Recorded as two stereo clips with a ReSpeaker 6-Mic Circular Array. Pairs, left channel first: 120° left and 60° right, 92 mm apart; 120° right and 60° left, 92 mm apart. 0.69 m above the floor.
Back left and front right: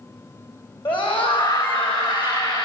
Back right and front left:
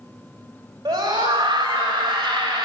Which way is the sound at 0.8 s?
110° left.